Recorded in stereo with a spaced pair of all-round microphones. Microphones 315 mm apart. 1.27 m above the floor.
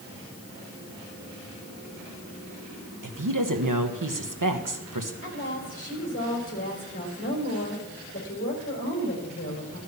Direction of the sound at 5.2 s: 40° left (ahead or behind).